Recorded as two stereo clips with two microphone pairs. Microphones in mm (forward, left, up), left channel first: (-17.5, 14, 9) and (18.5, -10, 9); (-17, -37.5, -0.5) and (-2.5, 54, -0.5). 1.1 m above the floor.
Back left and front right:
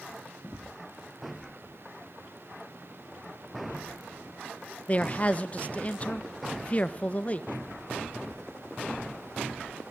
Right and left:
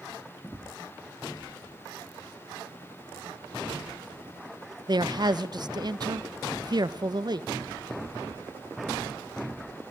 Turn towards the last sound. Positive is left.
turn(degrees=95)